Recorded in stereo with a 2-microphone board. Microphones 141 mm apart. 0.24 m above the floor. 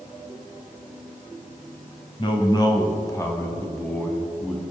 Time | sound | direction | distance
2.2 | a man speaking | 35° left (ahead or behind) | 1.4 m